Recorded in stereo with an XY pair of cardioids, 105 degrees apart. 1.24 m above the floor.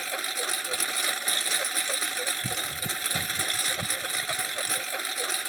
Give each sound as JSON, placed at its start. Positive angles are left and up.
{"t": 0.0, "sound": "a lawn mower", "azimuth_deg": -10}